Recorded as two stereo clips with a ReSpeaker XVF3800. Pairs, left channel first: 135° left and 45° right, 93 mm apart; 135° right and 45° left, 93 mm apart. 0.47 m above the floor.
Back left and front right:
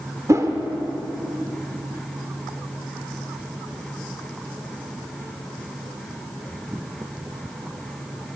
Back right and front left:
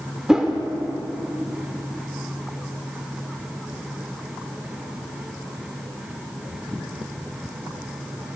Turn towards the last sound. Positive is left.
turn(degrees=-30)